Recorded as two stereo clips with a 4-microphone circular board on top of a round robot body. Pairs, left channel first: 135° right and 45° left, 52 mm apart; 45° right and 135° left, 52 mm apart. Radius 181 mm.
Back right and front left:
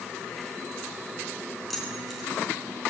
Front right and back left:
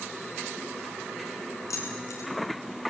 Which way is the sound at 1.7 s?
45° right.